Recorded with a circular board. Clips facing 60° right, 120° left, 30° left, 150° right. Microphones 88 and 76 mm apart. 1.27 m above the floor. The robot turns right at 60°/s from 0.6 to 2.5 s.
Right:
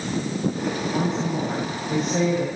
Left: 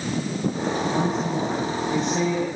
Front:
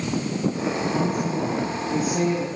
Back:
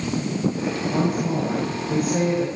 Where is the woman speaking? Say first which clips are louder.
Left 1 dB, back 1 dB; straight behind, 9.5 m; by 2.5 s 85° right, 9.5 m.